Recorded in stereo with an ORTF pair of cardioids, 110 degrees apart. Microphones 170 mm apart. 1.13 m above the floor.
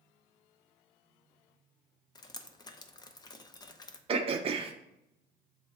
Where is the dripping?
25° left, 0.7 m.